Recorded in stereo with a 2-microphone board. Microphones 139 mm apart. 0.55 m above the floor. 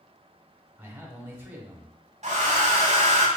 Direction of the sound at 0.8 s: 15° right (ahead or behind).